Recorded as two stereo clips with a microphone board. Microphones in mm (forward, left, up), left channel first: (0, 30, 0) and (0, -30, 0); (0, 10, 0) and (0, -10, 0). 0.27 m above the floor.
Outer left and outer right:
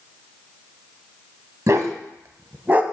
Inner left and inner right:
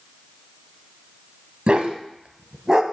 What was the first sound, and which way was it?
A dog barking, 50° right (ahead or behind).